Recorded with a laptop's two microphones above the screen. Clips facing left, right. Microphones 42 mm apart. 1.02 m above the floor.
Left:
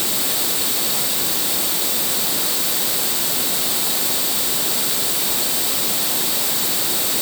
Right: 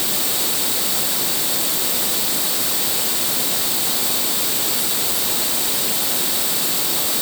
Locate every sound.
Only background noise.